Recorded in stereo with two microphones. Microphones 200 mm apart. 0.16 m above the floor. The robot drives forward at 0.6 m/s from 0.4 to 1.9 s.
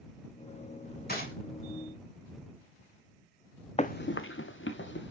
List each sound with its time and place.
1.1 s a gunshot: 45° left (ahead or behind), 6 m; by 1.3 s 50° left (ahead or behind), 6 m
3.8 s running footsteps: 30° left (ahead or behind), 0.6 m; by 5.1 s 65° left (ahead or behind), 1.7 m